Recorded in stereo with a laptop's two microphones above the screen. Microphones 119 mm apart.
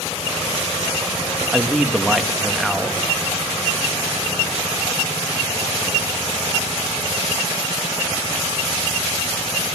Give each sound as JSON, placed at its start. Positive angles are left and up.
{"t": 1.5, "sound": "a man speaking", "side_deg": -5, "distance_m": 1.2}